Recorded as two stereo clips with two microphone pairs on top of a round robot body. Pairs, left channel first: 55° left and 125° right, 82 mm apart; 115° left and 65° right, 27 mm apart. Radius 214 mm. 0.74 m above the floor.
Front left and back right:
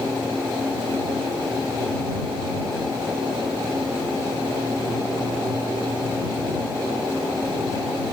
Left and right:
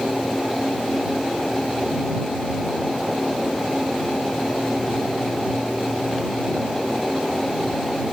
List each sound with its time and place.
Only background noise.